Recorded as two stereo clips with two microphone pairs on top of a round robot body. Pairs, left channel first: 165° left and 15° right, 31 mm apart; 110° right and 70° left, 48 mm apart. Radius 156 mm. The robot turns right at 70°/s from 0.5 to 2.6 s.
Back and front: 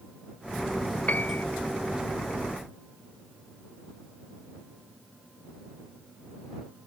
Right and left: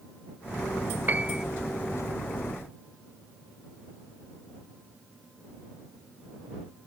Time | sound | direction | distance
1.1 | a piano | 125° left | ?